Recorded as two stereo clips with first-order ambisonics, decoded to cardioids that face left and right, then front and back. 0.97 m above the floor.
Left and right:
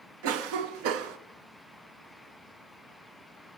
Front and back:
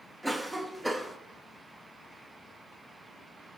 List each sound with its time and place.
0.2 s a cough: 95° right, 0.8 m